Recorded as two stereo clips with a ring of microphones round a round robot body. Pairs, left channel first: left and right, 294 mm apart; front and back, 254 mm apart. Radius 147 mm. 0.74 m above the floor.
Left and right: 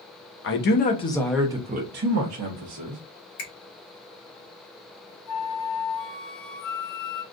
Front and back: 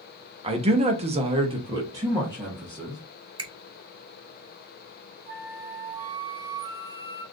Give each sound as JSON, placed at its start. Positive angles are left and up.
{"t": 0.4, "sound": "a man speaking", "azimuth_deg": 120, "distance_m": 0.8}
{"t": 3.4, "sound": "a finger snap", "azimuth_deg": 110, "distance_m": 2.0}
{"t": 5.3, "sound": "a flute", "azimuth_deg": 125, "distance_m": 2.0}